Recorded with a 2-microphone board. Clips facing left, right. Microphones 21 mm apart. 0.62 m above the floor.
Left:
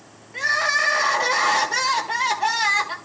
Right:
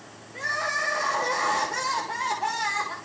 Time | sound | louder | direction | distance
0.3 | crying | left 7 dB | 70° left (ahead or behind) | 1.7 m